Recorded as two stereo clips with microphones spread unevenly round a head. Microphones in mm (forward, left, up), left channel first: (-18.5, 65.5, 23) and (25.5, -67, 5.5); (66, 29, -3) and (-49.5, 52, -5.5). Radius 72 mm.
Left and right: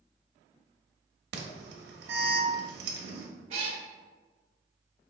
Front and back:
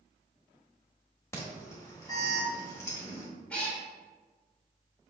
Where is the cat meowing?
80° right, 0.9 m.